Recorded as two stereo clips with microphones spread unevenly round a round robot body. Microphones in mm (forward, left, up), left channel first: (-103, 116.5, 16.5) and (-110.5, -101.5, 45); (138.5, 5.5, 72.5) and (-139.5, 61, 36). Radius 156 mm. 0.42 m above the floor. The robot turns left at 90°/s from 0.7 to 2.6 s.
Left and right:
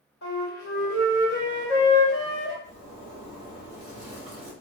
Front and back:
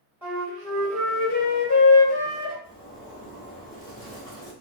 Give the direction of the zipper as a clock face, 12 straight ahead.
3 o'clock.